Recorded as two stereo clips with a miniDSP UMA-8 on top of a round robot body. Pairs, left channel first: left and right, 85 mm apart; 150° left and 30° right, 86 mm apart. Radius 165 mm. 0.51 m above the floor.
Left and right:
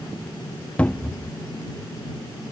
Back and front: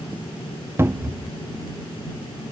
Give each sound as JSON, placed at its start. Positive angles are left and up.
{"t": 0.8, "sound": "a cupboard door", "azimuth_deg": 20}